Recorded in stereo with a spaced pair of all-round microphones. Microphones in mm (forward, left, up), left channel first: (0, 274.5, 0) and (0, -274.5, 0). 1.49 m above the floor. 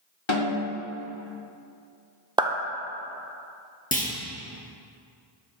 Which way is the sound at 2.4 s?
10° right (ahead or behind).